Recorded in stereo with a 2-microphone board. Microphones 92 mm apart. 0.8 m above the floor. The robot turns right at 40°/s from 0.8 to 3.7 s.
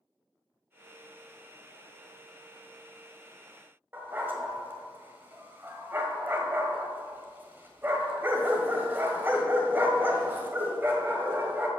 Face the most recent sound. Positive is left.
turn(degrees=-20)  # may be behind; listen again after turning